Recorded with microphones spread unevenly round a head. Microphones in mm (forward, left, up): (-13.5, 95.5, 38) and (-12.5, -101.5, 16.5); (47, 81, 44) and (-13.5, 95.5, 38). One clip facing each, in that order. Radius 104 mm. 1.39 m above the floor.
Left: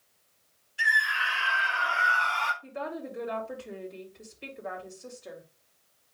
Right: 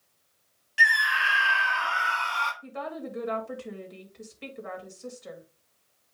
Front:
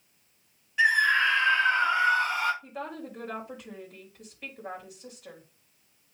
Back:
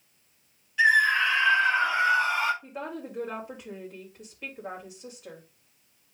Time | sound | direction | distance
0.8 | a scream | 90° right | 1.6 m
2.6 | a woman speaking | 115° right | 3 m